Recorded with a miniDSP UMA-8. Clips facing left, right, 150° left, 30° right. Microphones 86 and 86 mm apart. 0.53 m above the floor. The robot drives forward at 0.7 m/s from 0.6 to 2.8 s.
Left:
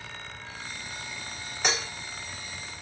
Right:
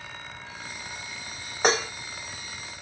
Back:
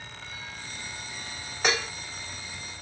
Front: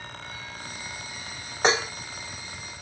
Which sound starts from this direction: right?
Dishes clattering, at 1.6 s.